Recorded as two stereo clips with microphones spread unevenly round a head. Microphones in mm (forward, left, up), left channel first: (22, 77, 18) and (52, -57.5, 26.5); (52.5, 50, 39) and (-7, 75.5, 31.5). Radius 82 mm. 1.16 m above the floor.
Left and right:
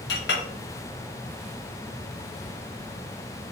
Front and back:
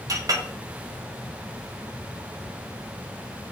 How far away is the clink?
About 0.9 m.